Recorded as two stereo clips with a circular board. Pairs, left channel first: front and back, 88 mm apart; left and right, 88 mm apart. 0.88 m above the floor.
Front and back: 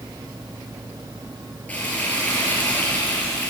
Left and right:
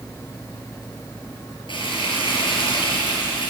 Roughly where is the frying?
Left.